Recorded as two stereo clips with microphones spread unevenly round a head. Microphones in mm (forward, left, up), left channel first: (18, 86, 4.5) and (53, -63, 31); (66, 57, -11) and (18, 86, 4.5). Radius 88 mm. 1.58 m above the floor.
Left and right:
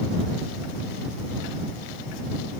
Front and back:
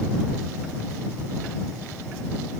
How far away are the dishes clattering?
I don't hear dishes clattering.